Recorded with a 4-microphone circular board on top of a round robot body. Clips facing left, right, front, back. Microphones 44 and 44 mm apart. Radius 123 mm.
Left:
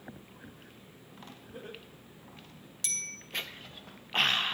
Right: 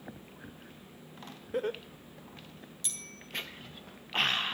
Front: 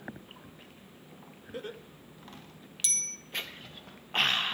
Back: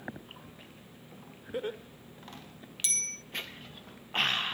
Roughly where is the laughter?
Right.